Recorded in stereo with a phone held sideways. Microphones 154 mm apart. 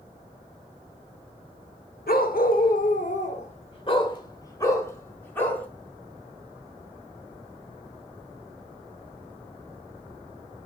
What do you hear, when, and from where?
2.1 s a dog barking: 75° left (ahead or behind), 1.3 m; by 5.7 s 10° left (ahead or behind), 2.5 m